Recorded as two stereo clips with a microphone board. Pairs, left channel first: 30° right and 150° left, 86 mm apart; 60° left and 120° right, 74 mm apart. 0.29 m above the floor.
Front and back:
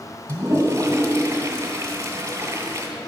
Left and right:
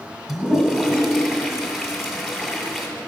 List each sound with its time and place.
0.3 s a toilet flushing: 150° left, 1.6 m